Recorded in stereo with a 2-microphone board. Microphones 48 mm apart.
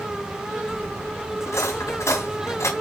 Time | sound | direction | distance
1.4 | cutlery clinking | 80° left | 3 m